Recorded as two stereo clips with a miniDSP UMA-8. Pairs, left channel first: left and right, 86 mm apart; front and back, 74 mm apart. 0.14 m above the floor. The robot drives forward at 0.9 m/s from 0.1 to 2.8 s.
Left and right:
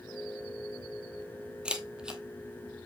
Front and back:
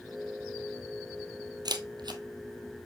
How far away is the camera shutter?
About 1.2 m.